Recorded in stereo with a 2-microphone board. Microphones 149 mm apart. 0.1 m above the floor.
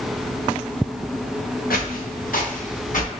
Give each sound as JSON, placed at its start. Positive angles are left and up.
{"t": 1.7, "sound": "footsteps", "side_deg": 80, "distance_m": 1.3}